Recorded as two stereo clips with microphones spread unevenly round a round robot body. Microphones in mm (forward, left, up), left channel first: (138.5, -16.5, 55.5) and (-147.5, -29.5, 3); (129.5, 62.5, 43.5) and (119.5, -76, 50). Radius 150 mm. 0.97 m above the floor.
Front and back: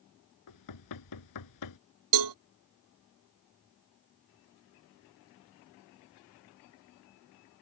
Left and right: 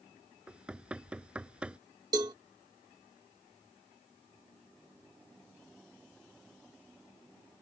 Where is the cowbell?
170° right.